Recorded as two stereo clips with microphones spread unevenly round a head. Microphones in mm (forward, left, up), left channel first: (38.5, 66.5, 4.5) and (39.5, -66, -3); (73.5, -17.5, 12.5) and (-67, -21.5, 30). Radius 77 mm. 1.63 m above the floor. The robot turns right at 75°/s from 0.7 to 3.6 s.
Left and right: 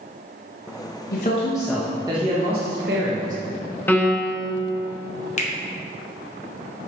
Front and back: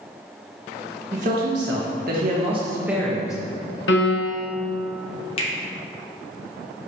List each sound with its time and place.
1.1 s a man speaking: 130° left, 1.2 m; by 3.4 s 65° right, 1.2 m
3.9 s a piano: 15° left, 1.2 m
5.4 s a finger snap: 55° left, 1.2 m